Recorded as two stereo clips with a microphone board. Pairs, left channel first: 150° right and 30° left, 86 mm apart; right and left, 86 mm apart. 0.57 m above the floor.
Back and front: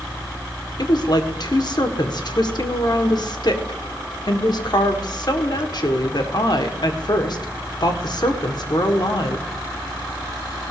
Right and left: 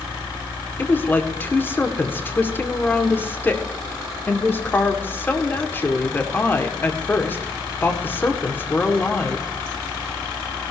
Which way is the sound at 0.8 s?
150° right.